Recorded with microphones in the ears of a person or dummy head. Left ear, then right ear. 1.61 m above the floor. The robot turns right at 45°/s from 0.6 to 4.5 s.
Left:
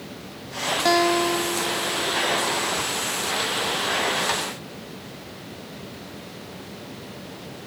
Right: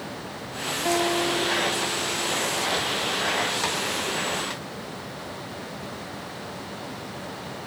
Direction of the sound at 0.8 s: 35° left.